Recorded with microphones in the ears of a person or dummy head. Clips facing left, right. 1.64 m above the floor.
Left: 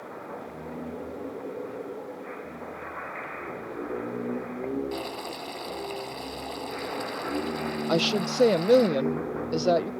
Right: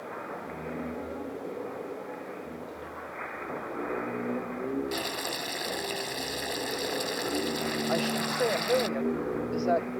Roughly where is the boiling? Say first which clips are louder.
Even; centre.